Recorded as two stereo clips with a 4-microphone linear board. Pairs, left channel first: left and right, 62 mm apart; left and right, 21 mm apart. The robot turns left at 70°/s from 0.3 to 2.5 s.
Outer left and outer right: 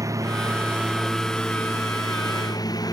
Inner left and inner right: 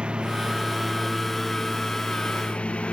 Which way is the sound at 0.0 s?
125° right.